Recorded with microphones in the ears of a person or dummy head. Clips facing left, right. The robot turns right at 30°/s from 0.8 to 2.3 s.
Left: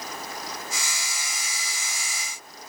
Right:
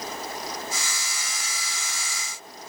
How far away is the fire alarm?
No fire alarm in this recording.